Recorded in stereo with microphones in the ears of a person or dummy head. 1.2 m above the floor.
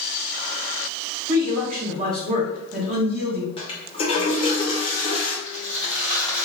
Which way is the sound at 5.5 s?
55° right (ahead or behind).